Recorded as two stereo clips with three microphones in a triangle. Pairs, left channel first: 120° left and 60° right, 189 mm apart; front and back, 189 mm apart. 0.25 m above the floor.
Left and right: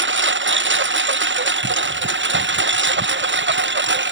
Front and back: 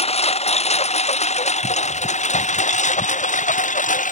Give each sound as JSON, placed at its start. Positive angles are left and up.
{"t": 0.0, "sound": "a lawn mower", "azimuth_deg": -55}